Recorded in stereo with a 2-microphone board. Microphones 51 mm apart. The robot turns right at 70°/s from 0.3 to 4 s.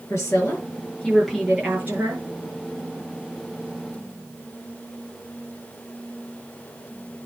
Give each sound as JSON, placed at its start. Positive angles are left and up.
{"t": 0.1, "sound": "a woman speaking", "azimuth_deg": 110, "distance_m": 7.5}